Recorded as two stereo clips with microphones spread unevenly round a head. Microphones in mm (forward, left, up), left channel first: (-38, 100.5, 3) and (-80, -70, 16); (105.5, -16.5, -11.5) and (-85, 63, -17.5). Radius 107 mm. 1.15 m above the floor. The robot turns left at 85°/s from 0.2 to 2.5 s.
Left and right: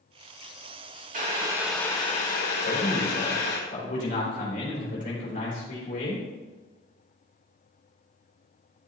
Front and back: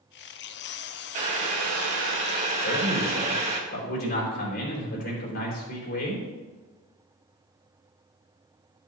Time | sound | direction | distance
1.1 | boiling | 145° right | 2.5 m
2.6 | a man speaking | 20° left | 3.5 m